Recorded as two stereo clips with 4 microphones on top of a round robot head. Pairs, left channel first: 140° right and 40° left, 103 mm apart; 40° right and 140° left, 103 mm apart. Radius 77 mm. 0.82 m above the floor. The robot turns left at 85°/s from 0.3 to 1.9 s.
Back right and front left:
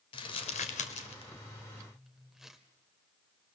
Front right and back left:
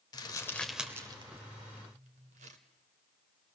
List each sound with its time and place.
0.1 s crumpling: 95° right, 1.5 m; by 2.6 s 130° left, 1.5 m